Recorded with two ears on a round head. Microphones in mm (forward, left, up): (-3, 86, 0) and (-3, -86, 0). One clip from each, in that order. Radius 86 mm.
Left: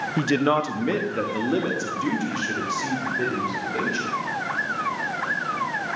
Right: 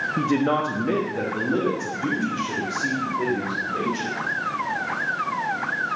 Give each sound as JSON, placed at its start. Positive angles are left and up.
{"t": 0.2, "sound": "a man speaking", "side_deg": 80, "distance_m": 0.9}